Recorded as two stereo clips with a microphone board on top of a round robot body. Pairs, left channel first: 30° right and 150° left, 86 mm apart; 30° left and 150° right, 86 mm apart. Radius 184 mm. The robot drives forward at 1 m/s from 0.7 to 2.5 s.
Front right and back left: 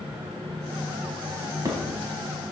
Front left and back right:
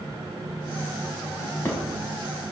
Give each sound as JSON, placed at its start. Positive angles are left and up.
{"t": 1.4, "sound": "a drawer", "azimuth_deg": 95, "distance_m": 4.0}